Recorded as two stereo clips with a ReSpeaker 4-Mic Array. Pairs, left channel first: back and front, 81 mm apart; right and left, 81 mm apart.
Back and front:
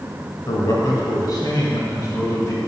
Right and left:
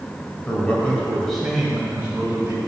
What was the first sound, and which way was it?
A man speaking, 155° right.